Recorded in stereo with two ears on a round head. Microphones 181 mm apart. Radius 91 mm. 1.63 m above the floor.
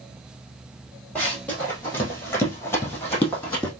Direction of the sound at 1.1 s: 10° left (ahead or behind).